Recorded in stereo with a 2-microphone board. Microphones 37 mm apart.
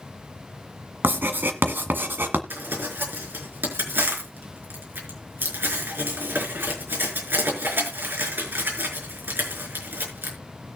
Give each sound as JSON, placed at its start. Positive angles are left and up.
{"t": 1.0, "sound": "writing", "side_deg": -80, "distance_m": 1.6}
{"t": 2.5, "sound": "crumpling", "side_deg": -80, "distance_m": 5.0}